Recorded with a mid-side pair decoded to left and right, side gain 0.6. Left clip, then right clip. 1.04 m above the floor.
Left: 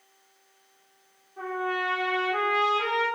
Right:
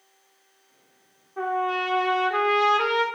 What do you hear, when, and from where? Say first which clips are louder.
1.4 s a trumpet: right 4 dB; 50° right, 2.5 m